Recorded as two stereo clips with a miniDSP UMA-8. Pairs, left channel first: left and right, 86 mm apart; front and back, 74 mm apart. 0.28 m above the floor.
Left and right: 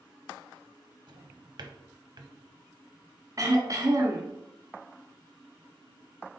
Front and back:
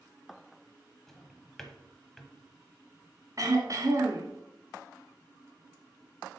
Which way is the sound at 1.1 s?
85° right.